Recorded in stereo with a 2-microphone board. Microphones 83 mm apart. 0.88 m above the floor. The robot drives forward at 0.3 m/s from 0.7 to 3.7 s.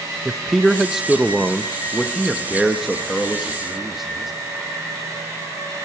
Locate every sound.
0.2 s a man speaking: 5° right (ahead or behind), 0.6 m